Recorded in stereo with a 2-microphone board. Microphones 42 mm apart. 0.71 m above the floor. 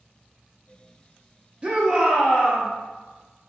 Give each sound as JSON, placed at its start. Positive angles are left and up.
{"t": 1.6, "sound": "a shout", "side_deg": -25, "distance_m": 0.5}